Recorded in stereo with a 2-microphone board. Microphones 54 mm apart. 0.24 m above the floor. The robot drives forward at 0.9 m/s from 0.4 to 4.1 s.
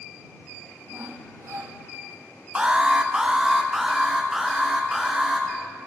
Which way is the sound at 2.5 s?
20° right (ahead or behind).